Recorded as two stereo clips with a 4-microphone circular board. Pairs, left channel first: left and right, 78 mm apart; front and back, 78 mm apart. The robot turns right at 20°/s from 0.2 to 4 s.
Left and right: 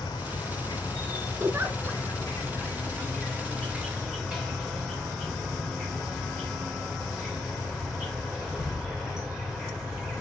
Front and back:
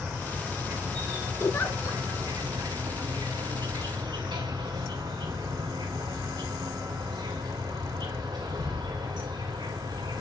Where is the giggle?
50° right, 1.1 m; by 2.0 s 35° right, 1.1 m.